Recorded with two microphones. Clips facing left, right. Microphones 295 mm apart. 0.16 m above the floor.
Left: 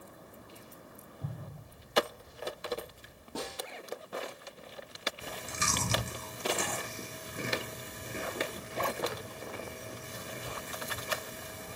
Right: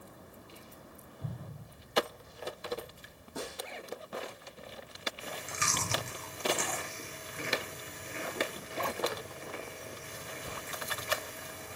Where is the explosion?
10° left (ahead or behind), 2.5 m.